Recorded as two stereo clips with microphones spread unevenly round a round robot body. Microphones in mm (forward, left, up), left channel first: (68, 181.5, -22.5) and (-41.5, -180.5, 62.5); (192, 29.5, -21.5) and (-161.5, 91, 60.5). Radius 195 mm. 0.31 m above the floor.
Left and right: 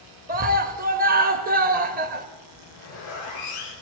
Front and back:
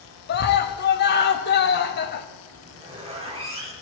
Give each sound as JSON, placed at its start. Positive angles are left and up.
{"t": 0.3, "sound": "a scream", "azimuth_deg": -35, "distance_m": 1.1}
{"t": 2.5, "sound": "a zipper", "azimuth_deg": 95, "distance_m": 4.5}